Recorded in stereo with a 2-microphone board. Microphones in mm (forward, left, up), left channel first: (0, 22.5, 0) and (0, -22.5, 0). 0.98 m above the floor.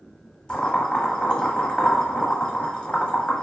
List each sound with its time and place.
0.5 s boiling: 20° left (ahead or behind), 0.7 m